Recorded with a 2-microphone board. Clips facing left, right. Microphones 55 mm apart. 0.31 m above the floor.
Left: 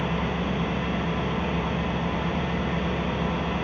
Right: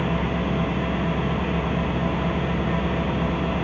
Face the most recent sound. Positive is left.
turn(degrees=-10)  # may be behind; listen again after turning